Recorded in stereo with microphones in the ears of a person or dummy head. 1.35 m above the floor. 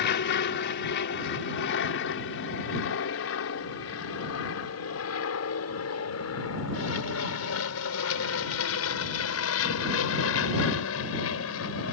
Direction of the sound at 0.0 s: 55° left (ahead or behind).